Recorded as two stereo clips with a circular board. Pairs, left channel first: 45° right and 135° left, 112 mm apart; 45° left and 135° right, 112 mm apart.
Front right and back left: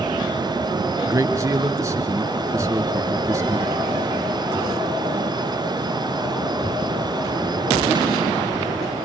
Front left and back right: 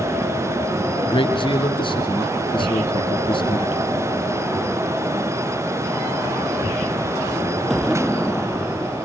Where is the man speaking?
75° left, 3 m.